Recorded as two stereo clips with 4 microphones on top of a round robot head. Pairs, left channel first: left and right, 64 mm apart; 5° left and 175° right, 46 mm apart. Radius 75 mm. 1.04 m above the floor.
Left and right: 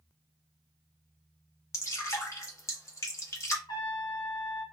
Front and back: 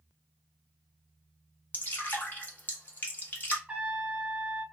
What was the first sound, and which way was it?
Dripping, 50° left.